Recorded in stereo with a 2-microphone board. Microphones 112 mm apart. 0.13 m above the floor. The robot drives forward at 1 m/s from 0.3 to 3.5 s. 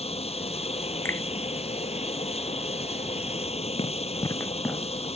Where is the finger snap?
20° left (ahead or behind).